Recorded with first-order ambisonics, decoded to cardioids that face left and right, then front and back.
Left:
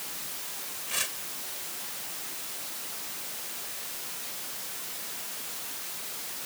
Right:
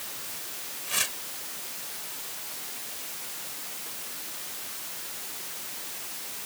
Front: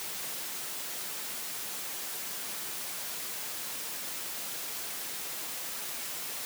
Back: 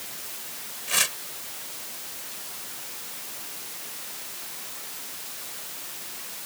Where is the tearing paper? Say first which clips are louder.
Right 3 dB, back 16 dB; 170° right.